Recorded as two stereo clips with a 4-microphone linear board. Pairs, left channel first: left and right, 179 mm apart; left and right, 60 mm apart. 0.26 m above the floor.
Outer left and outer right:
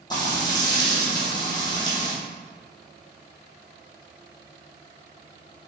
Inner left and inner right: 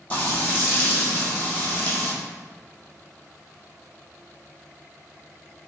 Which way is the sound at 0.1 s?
25° left (ahead or behind).